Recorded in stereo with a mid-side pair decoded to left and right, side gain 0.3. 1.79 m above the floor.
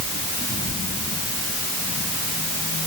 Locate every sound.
Only background noise.